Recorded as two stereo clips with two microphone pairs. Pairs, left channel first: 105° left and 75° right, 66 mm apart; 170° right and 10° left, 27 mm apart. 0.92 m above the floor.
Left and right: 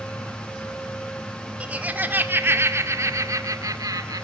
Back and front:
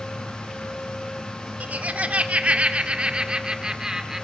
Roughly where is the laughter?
Ahead.